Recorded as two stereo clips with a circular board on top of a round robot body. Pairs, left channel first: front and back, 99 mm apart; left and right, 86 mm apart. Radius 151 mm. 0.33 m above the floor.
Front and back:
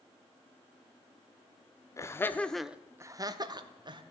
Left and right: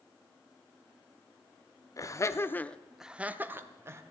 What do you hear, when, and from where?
2.0 s laughter: 50° left, 1.2 m; by 4.0 s 145° right, 1.8 m